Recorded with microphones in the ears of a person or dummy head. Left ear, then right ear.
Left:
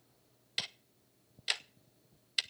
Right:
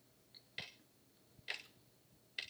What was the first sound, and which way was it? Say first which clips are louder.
Ticking: left 11 dB; 50° left (ahead or behind).